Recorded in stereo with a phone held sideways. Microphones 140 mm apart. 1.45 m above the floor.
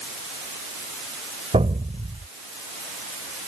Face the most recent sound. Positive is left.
turn(degrees=-50)  # may be behind; listen again after turning